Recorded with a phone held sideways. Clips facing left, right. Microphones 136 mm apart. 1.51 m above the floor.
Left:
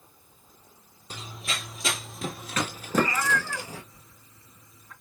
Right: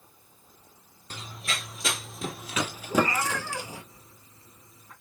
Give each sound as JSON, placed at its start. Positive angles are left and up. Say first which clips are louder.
{"t": 1.1, "sound": "running footsteps", "louder": "even", "side_deg": 10, "distance_m": 1.7}
{"t": 2.9, "sound": "a cat meowing", "louder": "even", "side_deg": -30, "distance_m": 4.0}